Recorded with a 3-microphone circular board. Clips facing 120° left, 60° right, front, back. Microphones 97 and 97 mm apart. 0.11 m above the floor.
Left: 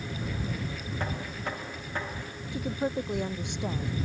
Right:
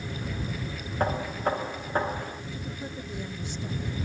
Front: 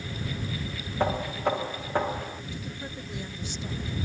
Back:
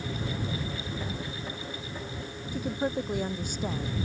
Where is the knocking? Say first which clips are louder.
Right 9 dB, front 10 dB; 10° right.